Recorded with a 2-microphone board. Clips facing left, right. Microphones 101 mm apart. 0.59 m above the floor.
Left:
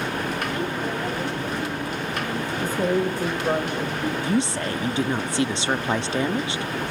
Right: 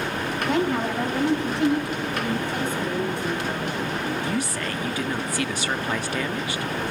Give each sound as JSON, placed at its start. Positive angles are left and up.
{"t": 0.5, "sound": "a woman speaking", "side_deg": -80, "distance_m": 4.5}
{"t": 2.6, "sound": "a woman speaking", "side_deg": 55, "distance_m": 2.5}
{"t": 4.2, "sound": "a woman speaking", "side_deg": 25, "distance_m": 0.7}